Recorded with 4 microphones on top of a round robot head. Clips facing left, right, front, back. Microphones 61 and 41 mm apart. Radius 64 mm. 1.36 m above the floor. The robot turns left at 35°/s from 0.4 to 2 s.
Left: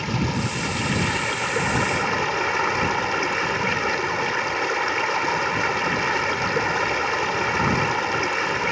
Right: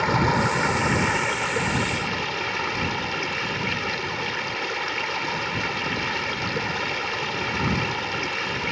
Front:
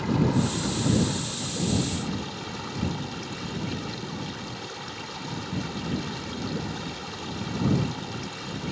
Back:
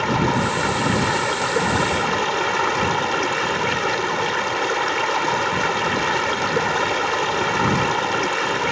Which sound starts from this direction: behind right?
Running water, at 0.0 s.